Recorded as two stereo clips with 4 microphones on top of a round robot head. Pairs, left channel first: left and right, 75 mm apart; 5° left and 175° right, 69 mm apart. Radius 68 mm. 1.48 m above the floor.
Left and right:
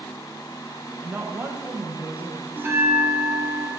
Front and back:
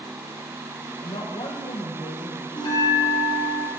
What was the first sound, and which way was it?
A woman speaking, 25° right.